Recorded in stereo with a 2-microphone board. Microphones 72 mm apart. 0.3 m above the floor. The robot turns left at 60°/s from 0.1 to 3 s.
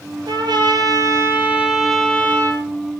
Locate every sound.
0.3 s a trumpet: 85° right, 5 m; by 2.6 s 135° left, 5 m